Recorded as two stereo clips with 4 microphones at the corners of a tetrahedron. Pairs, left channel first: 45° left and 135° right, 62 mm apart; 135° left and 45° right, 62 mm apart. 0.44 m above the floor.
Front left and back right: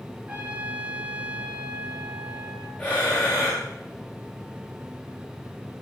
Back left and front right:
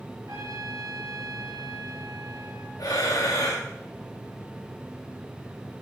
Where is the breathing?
110° left, 10 m.